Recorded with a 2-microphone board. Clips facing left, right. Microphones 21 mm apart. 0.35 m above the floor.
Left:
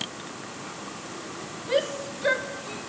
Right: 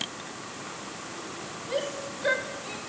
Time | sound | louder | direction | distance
1.7 | a shout | left 6 dB | 30° left (ahead or behind) | 0.9 m